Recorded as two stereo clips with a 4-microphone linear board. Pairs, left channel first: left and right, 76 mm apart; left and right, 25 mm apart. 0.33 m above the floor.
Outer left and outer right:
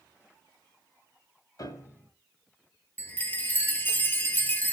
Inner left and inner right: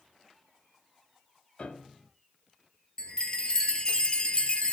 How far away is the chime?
About 1.7 m.